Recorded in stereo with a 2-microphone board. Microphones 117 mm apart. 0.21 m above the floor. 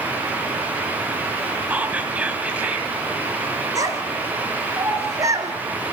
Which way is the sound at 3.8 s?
30° right (ahead or behind).